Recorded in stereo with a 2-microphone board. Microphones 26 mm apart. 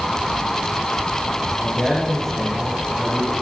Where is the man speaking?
15° left (ahead or behind), 10 m.